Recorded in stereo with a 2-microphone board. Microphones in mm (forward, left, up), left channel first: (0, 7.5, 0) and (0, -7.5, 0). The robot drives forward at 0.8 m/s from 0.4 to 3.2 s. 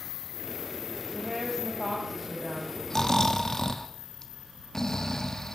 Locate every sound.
1.1 s a woman speaking: 5° right (ahead or behind), 3 m
2.9 s snoring: 30° left (ahead or behind), 1.2 m; by 5.6 s 35° left (ahead or behind), 1.1 m